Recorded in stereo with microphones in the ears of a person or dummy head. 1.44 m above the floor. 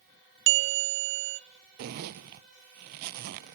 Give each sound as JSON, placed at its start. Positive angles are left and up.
{"t": 0.5, "sound": "a bell", "side_deg": -55, "distance_m": 0.7}
{"t": 1.8, "sound": "a zipper", "side_deg": -45, "distance_m": 0.7}